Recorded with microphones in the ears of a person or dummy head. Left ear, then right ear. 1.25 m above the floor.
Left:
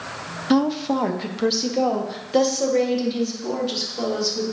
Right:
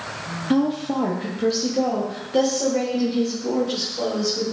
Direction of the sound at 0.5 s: 30° left (ahead or behind).